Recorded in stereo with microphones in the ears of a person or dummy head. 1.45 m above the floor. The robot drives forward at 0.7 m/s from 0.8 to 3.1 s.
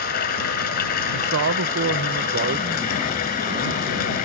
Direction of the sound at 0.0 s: 45° left (ahead or behind).